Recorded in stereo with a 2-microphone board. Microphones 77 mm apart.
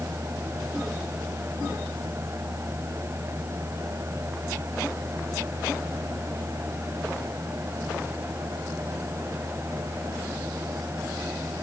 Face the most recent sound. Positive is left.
No sound to turn to.